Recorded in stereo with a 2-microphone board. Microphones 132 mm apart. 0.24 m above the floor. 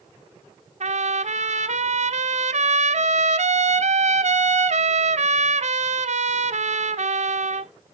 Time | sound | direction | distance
0.8 | a trumpet | 60° right (ahead or behind) | 0.5 m